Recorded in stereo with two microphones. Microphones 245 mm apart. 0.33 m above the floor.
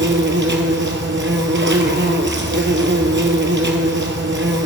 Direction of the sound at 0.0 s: 50° right (ahead or behind).